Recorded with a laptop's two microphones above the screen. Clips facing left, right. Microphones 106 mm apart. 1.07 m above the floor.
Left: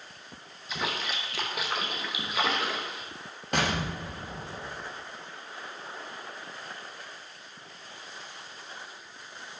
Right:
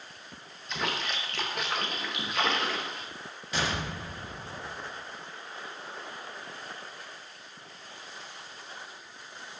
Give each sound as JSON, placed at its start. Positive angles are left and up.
{"t": 0.7, "sound": "a splash", "side_deg": 5, "distance_m": 0.7}
{"t": 3.5, "sound": "an explosion", "side_deg": 55, "distance_m": 0.6}